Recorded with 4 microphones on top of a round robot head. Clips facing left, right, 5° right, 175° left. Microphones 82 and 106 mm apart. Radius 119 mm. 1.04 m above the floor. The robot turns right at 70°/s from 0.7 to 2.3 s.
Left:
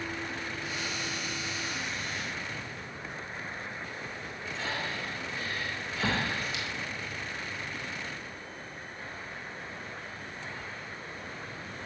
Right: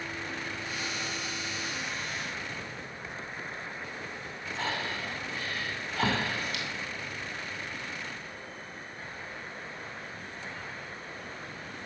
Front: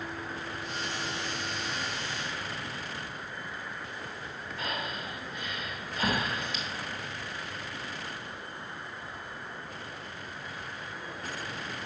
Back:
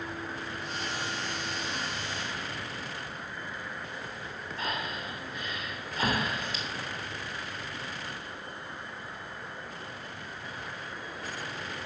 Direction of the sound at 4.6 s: 125° right.